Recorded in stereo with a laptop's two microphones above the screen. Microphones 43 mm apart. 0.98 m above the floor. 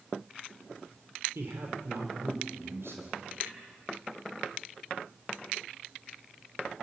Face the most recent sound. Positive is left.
turn(degrees=-70)  # may be behind; listen again after turning